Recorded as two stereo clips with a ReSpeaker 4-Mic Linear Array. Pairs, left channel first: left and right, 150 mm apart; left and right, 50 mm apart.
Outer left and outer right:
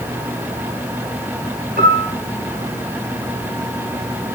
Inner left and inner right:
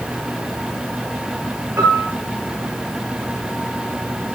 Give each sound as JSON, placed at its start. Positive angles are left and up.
{"t": 1.8, "sound": "a piano", "side_deg": -85, "distance_m": 8.0}